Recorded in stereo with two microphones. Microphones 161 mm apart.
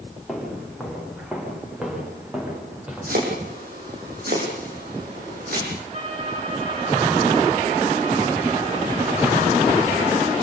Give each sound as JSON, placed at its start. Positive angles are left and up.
{"t": 0.3, "sound": "footsteps", "side_deg": 0, "distance_m": 9.0}
{"t": 3.1, "sound": "chopping", "side_deg": -65, "distance_m": 7.5}
{"t": 5.9, "sound": "a violin", "side_deg": -40, "distance_m": 9.0}